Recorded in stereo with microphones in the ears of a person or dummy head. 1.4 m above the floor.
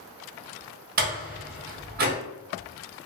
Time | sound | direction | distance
1.0 | a door slam | 50° right (ahead or behind) | 0.9 m